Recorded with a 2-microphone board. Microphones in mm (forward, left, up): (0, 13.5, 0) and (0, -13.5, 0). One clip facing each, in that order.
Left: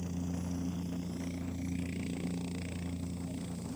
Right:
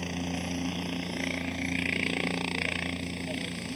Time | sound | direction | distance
0.0 | a helicopter | 60° right (ahead or behind) | ?